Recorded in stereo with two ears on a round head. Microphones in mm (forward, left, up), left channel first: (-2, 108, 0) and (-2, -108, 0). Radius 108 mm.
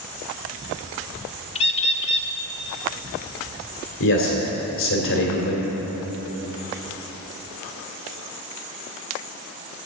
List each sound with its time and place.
1.6 s a bird: 25° left (ahead or behind), 0.6 m
4.0 s a man speaking: 55° left (ahead or behind), 2.5 m